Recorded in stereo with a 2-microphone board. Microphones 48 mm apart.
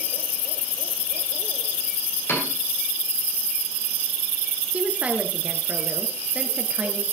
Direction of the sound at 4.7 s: 25° right (ahead or behind).